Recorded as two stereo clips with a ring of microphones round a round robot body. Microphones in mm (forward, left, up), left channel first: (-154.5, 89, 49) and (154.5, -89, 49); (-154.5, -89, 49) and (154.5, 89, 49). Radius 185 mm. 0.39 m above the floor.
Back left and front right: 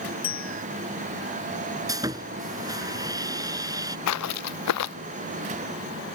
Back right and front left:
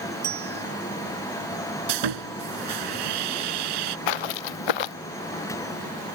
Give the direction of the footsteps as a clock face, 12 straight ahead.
5 o'clock.